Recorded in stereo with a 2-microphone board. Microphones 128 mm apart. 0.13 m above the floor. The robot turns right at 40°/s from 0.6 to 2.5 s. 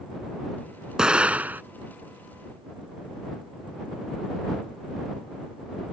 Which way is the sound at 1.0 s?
5° right (ahead or behind).